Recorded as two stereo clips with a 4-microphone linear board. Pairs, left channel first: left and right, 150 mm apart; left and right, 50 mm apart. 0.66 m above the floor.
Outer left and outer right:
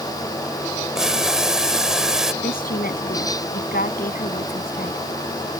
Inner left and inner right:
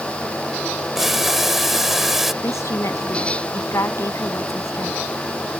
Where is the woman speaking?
80° left.